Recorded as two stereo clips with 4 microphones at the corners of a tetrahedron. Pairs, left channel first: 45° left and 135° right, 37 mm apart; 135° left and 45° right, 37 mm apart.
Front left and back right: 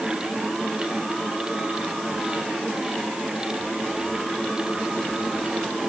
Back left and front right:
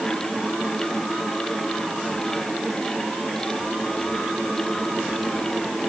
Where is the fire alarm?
I don't hear a fire alarm.